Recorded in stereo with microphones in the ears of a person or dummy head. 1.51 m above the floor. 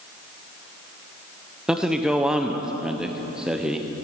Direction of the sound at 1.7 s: 5° right (ahead or behind).